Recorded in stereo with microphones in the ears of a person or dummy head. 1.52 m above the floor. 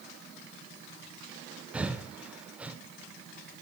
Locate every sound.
1.7 s breathing: 5° right (ahead or behind), 0.6 m